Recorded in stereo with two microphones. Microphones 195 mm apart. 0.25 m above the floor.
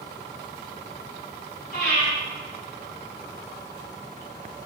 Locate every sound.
1.7 s breathing: 55° left (ahead or behind), 1.9 m